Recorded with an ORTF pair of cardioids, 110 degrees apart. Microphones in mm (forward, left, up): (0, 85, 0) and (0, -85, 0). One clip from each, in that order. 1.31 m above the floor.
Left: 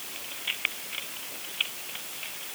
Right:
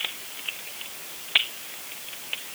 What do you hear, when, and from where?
Only background noise.